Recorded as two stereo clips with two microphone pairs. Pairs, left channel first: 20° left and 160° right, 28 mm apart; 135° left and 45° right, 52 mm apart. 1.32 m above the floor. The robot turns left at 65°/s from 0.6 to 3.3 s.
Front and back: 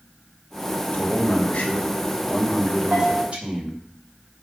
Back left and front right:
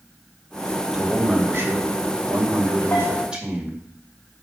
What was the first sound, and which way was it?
A man speaking, 40° left.